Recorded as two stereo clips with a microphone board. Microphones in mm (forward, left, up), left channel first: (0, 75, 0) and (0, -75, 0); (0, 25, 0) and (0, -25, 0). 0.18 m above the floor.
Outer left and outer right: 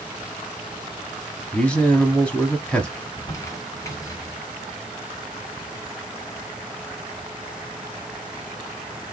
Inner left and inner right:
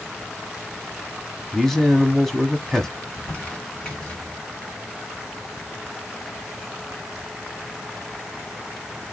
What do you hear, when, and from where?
1.5 s a man speaking: 10° left (ahead or behind), 1.1 m
3.0 s crumpling: 20° left (ahead or behind), 2.5 m